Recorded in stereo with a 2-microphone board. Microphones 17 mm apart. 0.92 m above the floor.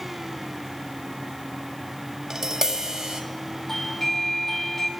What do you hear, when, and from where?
2.3 s tapping: 35° right (ahead or behind), 1.9 m
3.7 s a doorbell: 20° left (ahead or behind), 2 m